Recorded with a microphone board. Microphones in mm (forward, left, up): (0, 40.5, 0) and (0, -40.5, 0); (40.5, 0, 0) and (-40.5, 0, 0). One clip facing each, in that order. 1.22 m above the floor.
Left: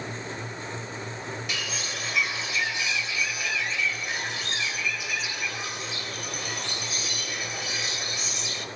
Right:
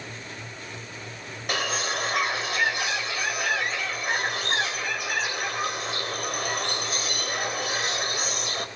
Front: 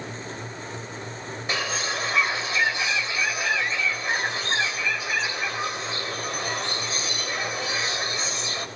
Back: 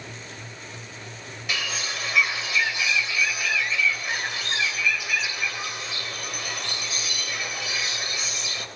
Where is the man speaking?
No man speaking in this recording.